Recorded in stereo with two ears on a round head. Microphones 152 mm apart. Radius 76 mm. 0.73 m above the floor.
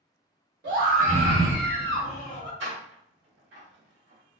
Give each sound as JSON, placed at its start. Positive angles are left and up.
{"t": 0.6, "sound": "a scream", "side_deg": -60, "distance_m": 1.4}
{"t": 2.6, "sound": "a door slam", "side_deg": -80, "distance_m": 1.3}